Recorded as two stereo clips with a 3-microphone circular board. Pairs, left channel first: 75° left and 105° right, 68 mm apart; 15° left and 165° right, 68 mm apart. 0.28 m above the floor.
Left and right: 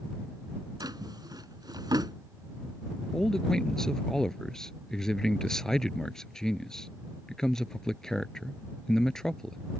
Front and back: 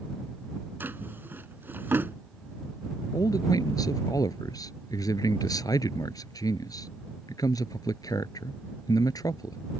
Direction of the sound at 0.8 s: 105° right.